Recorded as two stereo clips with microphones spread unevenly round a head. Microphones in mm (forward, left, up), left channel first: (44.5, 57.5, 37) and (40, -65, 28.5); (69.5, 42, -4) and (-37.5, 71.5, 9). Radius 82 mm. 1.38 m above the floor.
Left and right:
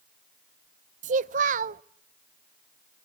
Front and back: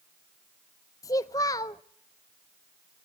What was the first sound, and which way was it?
A child speaking, 85° right.